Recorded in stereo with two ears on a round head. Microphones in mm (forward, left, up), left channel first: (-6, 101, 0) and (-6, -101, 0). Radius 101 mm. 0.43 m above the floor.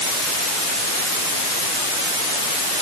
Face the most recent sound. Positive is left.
No sound to turn to.